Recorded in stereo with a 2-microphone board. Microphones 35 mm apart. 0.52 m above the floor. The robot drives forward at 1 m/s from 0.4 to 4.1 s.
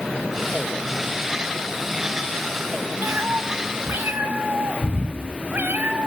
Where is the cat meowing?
80° right, 2.5 m; by 6.1 s 75° right (ahead or behind), 2.5 m.